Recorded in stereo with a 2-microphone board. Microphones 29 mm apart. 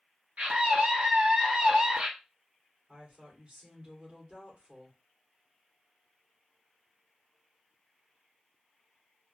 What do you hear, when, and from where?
0.4 s a scream: 60° right (ahead or behind), 1.5 m; by 2.1 s 30° right (ahead or behind), 1.1 m
2.9 s a woman speaking: 45° right (ahead or behind), 1.9 m